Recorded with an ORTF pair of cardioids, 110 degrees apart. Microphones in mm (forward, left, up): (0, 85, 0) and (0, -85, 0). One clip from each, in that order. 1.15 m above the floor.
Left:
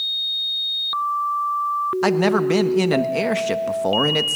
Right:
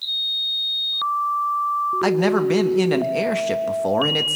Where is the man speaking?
10° left, 1.5 m.